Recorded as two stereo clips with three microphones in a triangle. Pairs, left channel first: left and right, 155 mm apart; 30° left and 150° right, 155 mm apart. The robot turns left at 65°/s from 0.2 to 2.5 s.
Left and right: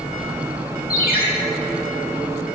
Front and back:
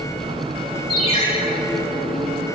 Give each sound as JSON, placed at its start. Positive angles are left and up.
{"t": 0.9, "sound": "a ringtone", "azimuth_deg": 85, "distance_m": 2.0}